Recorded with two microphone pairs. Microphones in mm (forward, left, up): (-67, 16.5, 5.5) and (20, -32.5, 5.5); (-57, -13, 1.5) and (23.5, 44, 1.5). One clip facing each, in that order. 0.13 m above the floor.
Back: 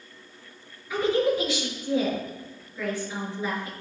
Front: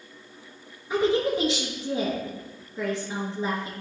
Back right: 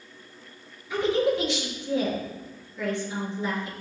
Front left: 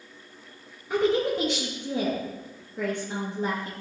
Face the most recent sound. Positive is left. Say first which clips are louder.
# even, even
turn(degrees=25)